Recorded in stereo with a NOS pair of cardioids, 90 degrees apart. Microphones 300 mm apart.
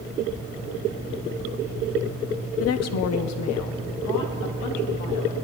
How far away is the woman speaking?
About 0.6 m.